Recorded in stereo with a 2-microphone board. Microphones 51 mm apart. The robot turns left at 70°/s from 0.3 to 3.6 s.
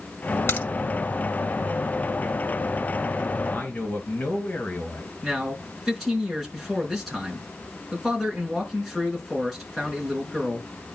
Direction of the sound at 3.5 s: 30° left (ahead or behind).